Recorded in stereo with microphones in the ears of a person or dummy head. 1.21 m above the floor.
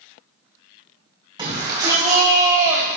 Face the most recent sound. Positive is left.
turn(degrees=-10)  # may be behind; listen again after turning